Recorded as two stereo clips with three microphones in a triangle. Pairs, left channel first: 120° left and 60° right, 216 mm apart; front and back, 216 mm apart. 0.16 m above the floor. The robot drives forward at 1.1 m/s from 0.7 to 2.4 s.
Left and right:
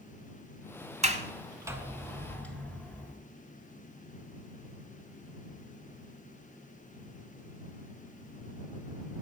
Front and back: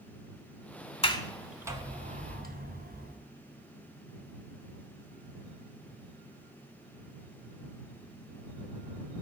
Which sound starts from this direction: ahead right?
A sliding door, at 1.0 s.